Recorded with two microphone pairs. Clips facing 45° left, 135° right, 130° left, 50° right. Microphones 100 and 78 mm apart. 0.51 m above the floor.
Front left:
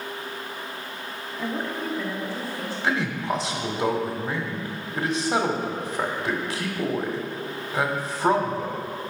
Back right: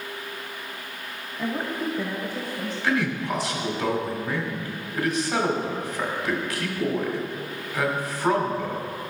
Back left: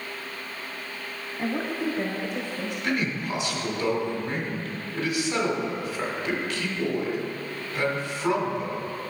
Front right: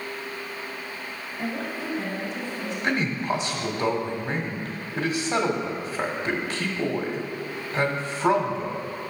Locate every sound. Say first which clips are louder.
1.4 s a woman speaking: back right 2 dB, back left 3 dB; 125° left, 0.8 m; by 2.7 s 155° left, 2.5 m
2.8 s a man speaking: back right 1 dB, front right 3 dB; 5° right, 1.6 m